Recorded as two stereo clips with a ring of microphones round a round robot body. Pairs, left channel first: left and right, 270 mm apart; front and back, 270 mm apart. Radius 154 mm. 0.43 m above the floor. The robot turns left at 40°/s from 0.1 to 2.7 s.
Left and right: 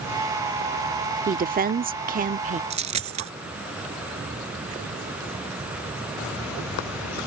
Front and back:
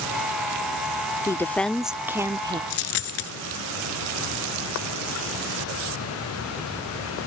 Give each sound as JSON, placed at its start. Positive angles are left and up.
{"t": 1.3, "sound": "a woman speaking", "azimuth_deg": -70}
{"t": 2.7, "sound": "a dropped coin", "azimuth_deg": -25}